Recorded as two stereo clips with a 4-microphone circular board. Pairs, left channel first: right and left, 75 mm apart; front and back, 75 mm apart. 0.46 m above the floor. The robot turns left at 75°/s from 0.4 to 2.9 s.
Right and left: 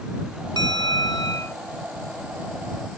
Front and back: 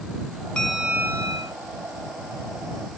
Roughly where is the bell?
Right.